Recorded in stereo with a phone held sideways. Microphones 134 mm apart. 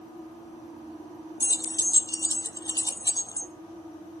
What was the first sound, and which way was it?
Keys jangling, 25° left (ahead or behind).